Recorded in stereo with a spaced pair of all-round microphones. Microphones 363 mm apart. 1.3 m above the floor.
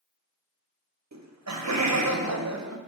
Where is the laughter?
50° right (ahead or behind), 0.6 m.